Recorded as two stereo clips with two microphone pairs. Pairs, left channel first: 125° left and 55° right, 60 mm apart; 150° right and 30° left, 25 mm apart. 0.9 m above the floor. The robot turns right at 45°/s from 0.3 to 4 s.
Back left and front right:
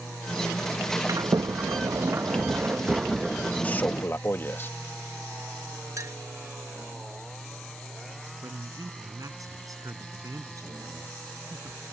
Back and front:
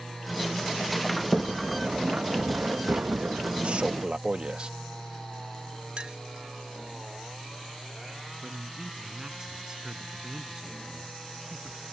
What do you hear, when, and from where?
1.1 s a sliding door: 65° right; by 4.0 s 65° left
3.6 s a man speaking: 60° left; by 4.7 s 75° left
6.0 s a clink: 20° right
8.4 s a man speaking: 35° right